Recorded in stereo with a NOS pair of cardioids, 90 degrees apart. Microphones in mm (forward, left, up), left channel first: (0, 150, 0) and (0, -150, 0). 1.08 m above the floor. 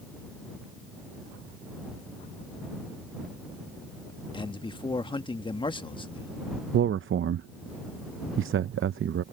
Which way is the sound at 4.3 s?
15° left.